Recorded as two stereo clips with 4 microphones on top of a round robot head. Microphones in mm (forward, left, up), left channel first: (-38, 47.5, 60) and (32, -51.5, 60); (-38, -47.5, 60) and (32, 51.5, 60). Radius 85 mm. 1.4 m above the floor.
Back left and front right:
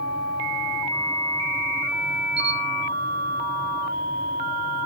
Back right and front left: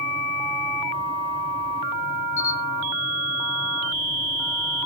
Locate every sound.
2.4 s a camera shutter: 100° right, 3 m